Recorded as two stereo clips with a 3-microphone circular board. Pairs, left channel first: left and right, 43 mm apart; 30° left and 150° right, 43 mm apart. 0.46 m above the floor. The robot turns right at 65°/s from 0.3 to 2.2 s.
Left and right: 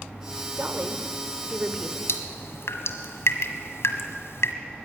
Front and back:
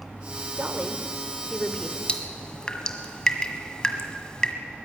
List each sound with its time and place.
0.5 s a woman speaking: 110° right, 1.6 m; by 2.0 s 15° right, 1.6 m
2.1 s dripping: 95° left, 1.5 m; by 4.5 s 100° left, 1.5 m